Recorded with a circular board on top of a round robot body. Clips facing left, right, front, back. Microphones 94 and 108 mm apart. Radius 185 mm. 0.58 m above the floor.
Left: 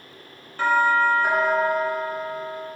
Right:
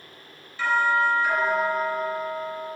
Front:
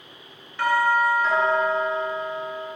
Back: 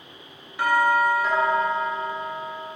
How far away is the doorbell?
About 2.5 m.